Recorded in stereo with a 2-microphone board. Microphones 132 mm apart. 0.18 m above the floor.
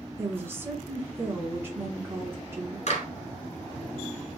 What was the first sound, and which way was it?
A woman speaking, 20° right (ahead or behind).